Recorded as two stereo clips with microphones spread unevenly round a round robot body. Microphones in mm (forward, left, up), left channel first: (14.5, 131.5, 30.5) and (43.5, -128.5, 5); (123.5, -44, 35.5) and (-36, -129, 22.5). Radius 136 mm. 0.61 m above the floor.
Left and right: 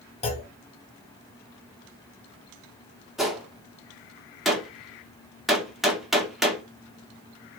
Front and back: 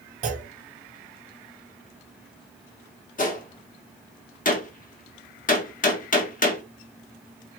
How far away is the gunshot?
About 1.3 m.